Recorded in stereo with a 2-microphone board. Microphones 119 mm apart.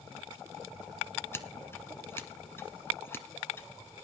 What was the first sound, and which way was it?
Scissors, 20° left (ahead or behind).